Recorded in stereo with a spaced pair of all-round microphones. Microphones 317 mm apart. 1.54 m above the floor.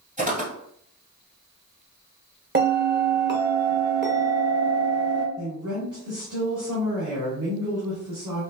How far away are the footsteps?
About 1.8 m.